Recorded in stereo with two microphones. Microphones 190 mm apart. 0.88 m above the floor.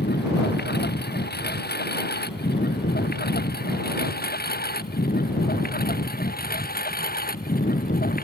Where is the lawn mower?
60° left (ahead or behind); by 8.2 s 50° left (ahead or behind).